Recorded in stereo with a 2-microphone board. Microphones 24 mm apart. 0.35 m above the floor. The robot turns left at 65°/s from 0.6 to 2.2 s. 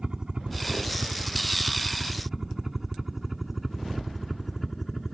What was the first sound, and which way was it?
A helicopter, 30° right (ahead or behind).